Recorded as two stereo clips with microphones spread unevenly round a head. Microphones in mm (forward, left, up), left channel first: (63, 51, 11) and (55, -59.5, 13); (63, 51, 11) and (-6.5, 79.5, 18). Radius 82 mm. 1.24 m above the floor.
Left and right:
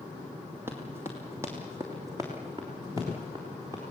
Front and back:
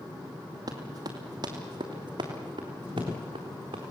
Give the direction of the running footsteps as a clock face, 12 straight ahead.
6 o'clock.